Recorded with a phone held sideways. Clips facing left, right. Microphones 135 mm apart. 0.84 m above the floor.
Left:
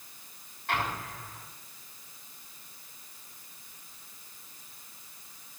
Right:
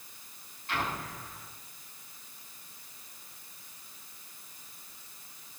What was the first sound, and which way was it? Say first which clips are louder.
An explosion: left 2 dB; 75° left (ahead or behind).